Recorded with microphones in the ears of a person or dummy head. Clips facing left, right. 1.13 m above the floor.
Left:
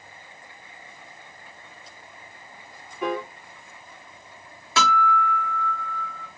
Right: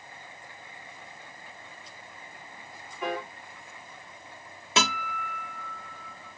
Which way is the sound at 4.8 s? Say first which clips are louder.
Left 8 dB; 15° right (ahead or behind).